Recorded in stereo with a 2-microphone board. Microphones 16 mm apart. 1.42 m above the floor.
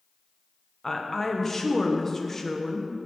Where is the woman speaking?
20° left (ahead or behind), 1.1 m.